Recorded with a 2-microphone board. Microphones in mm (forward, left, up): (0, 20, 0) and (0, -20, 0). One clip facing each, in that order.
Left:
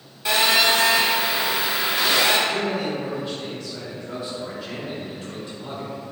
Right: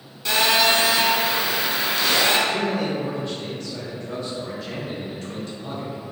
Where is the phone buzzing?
15° left (ahead or behind), 0.9 m.